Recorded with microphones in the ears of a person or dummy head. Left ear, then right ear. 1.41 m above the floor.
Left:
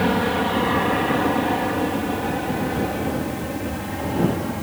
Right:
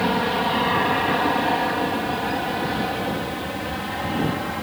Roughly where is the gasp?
No gasp in this recording.